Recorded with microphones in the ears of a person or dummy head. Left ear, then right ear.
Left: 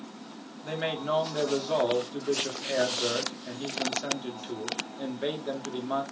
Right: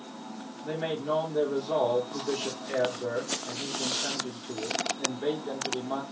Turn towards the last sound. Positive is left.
turn(degrees=60)  # may be behind; listen again after turning